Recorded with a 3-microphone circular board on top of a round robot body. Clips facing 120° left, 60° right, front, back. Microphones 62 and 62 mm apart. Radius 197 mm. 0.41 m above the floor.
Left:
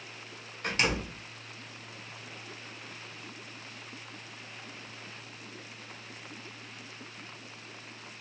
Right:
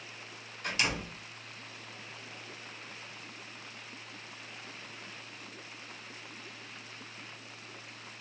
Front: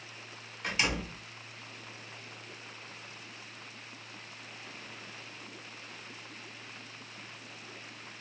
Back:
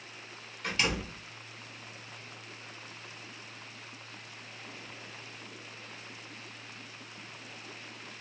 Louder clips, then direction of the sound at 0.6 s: Left 3 dB, even; 75° left.